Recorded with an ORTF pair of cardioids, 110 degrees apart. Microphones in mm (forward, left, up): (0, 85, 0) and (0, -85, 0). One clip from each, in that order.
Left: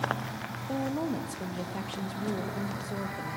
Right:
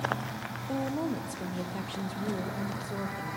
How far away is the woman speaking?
About 1.3 m.